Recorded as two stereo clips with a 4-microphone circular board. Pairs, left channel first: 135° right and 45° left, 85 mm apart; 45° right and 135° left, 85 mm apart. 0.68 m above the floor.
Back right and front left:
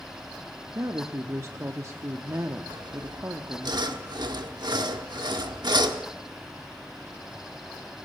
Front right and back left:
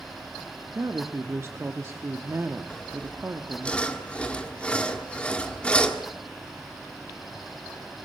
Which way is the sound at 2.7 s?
30° left.